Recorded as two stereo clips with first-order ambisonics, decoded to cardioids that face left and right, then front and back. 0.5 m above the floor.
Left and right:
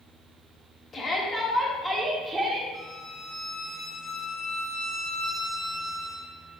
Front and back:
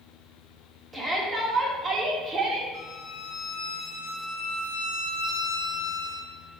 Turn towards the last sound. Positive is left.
turn(degrees=20)